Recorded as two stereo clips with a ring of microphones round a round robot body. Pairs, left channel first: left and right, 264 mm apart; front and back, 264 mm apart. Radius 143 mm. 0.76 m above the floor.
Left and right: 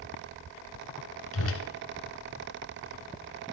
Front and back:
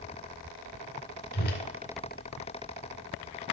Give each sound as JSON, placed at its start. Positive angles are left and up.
{"t": 1.3, "sound": "a whoosh", "azimuth_deg": 55, "distance_m": 2.0}